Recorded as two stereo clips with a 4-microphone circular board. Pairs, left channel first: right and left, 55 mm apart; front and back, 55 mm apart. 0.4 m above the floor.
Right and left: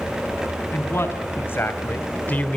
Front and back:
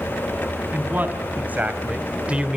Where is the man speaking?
130° right, 3.5 m; by 2.6 s 125° right, 1.2 m.